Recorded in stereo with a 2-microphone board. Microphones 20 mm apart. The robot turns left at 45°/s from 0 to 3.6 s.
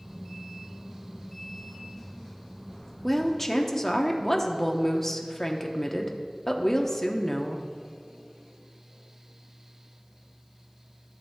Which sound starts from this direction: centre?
A woman speaking, at 3.0 s.